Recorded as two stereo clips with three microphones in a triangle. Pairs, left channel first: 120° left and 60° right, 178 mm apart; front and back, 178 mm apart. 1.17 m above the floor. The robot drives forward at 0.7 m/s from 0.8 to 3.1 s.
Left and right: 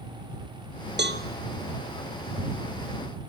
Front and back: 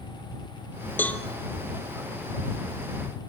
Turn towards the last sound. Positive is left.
turn(degrees=-125)